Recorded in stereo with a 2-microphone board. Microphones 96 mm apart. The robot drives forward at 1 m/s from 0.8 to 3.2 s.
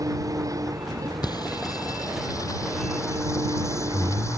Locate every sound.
0.0 s an engine running: 35° right (ahead or behind); by 4.4 s 40° right (ahead or behind)
1.2 s singing: 45° left (ahead or behind); by 4.4 s 30° left (ahead or behind)